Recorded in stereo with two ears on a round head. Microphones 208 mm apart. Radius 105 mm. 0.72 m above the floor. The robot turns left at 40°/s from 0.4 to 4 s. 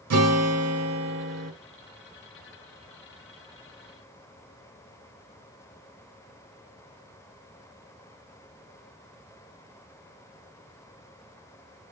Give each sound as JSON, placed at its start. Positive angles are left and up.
{"t": 0.1, "sound": "a guitar", "azimuth_deg": -95, "distance_m": 1.0}